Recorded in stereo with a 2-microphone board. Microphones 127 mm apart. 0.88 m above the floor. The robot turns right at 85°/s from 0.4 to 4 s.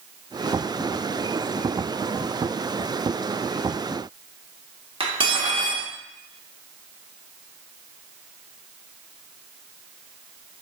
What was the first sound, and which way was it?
Cutlery clinking, 45° right (ahead or behind).